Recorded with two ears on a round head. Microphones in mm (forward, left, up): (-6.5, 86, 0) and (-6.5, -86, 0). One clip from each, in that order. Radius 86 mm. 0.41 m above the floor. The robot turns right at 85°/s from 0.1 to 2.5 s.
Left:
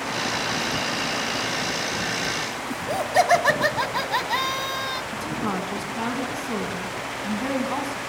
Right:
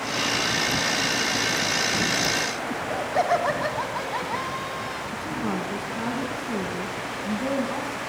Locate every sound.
2.7 s laughter: 65° left (ahead or behind), 2.5 m
5.1 s a woman speaking: 35° left (ahead or behind), 4.5 m